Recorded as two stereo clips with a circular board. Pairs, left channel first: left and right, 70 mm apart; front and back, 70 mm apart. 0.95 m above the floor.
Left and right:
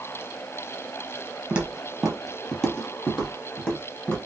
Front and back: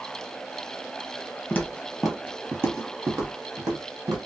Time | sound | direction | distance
1.5 | footsteps | 30° right | 1.0 m